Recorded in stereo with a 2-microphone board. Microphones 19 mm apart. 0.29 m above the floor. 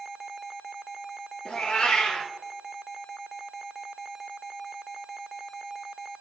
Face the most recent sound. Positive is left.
turn(degrees=70)  # may be behind; listen again after turning